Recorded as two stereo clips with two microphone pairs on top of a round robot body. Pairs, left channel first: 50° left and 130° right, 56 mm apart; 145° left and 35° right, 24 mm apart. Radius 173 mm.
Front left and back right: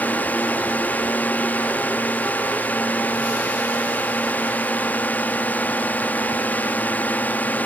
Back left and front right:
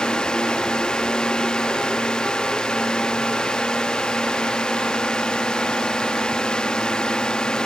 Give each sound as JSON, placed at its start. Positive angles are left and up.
{"t": 0.0, "sound": "a drone", "azimuth_deg": 105}